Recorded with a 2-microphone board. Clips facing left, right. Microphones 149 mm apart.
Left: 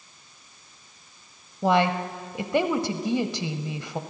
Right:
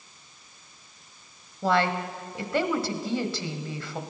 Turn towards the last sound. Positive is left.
turn(degrees=20)  # may be behind; listen again after turning